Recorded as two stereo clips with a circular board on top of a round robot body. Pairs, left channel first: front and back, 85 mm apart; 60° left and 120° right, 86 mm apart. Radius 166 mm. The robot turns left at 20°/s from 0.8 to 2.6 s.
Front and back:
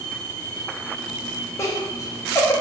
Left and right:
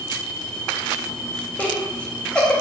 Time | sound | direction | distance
1.6 | laughter | straight ahead | 0.8 m